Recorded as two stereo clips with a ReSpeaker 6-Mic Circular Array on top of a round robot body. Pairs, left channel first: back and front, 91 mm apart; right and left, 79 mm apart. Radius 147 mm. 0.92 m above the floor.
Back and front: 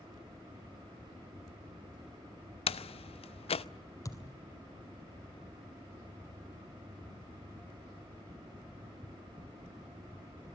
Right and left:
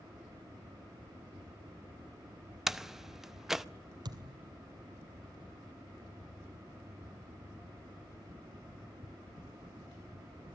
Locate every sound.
2.7 s a door slam: 175° left, 0.7 m
4.0 s a thud: 125° left, 2.5 m